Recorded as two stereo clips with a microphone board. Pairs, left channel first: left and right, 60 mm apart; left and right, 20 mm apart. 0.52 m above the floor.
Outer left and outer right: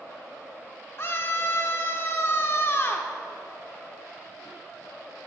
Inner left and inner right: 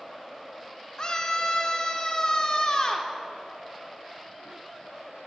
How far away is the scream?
About 1.1 m.